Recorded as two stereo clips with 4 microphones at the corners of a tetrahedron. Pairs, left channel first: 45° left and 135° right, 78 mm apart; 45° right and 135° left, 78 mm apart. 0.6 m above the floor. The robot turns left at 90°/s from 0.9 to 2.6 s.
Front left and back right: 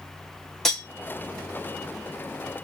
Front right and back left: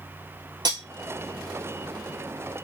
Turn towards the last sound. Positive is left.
turn(degrees=-25)